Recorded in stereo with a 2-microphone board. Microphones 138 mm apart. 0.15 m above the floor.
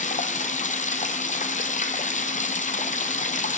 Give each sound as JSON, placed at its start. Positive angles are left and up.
{"t": 0.0, "sound": "running water", "side_deg": 60, "distance_m": 0.9}